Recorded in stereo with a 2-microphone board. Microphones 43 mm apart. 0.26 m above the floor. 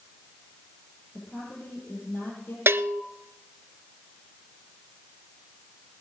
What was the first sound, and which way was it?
A woman speaking, 50° left (ahead or behind).